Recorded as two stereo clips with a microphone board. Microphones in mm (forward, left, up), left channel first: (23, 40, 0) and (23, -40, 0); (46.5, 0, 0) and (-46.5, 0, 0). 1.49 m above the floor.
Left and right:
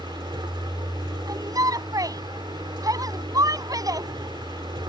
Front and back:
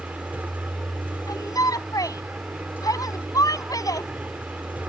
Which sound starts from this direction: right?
A vehicle, at 0.0 s.